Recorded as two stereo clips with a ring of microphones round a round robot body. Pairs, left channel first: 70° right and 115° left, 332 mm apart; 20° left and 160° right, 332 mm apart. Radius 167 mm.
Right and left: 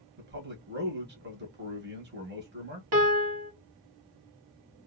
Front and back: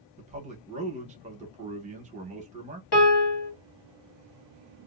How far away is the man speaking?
About 1.0 m.